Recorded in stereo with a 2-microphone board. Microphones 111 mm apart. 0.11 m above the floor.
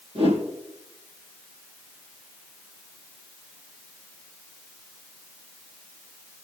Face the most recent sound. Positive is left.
turn(degrees=-65)  # may be behind; listen again after turning